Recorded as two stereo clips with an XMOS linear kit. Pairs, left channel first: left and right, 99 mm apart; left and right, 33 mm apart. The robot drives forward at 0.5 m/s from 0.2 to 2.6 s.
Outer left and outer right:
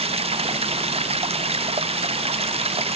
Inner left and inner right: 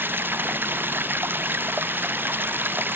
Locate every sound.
0.0 s running water: 85° right